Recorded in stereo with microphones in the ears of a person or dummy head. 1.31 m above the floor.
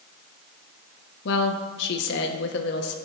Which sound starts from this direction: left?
A woman speaking, at 1.2 s.